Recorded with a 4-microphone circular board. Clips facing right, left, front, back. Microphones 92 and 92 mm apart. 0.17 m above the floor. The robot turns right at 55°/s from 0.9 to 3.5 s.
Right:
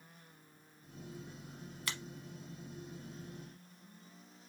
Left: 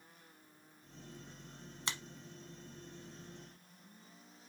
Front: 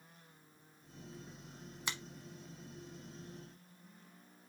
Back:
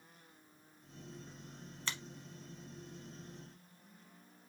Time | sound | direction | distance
1.9 | a finger snap | 60° left | 1.0 m